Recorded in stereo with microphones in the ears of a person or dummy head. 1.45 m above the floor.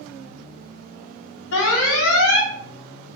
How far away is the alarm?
About 0.6 m.